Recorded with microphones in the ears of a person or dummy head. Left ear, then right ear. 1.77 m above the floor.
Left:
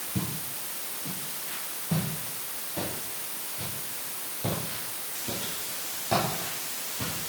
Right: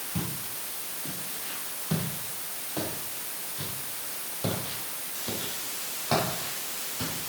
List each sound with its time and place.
0.1 s footsteps: 60° right (ahead or behind), 3.5 m; by 7.1 s 35° right (ahead or behind), 6 m